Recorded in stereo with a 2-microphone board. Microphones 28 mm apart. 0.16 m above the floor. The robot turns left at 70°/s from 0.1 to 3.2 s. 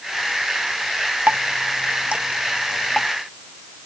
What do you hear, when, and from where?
1.3 s dripping: 70° right (ahead or behind); by 3.1 s 15° left (ahead or behind)